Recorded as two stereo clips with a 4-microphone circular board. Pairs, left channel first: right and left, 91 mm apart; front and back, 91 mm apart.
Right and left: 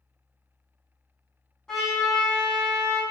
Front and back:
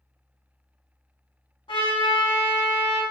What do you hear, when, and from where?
1.7 s a trumpet: 5° right, 1.9 m